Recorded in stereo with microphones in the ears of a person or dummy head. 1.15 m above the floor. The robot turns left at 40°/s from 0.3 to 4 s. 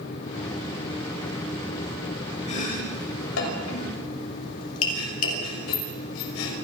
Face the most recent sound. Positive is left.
turn(degrees=80)